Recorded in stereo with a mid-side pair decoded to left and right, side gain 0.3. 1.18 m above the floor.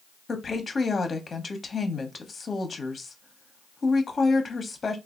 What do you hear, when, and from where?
0.3 s a woman speaking: 50° left, 0.9 m